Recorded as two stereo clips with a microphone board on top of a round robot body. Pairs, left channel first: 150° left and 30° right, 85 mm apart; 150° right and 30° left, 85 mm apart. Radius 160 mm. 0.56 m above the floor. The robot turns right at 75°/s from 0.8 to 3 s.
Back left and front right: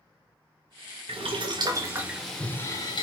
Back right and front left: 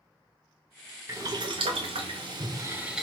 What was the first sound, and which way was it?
Boiling, 30° right.